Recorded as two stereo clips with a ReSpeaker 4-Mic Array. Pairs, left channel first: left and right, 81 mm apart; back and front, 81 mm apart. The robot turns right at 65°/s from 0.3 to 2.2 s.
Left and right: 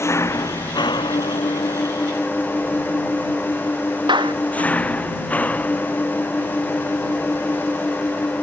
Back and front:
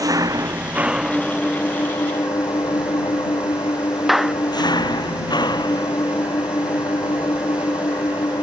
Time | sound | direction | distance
0.0 | an engine running | 40° left | ?
4.1 | a clap | 90° right | ?